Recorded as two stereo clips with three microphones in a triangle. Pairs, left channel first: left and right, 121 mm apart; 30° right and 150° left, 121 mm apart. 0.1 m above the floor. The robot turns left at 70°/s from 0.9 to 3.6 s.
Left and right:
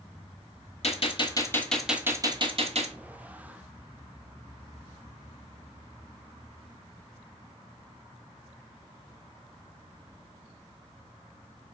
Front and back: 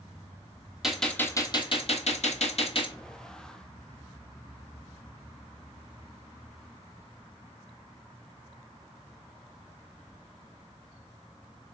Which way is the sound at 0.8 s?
65° left.